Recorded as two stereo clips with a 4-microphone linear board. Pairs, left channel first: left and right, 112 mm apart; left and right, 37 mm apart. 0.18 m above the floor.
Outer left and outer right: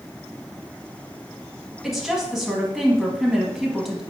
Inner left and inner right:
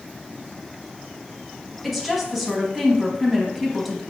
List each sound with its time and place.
1.8 s a woman speaking: centre (ahead or behind), 1.0 m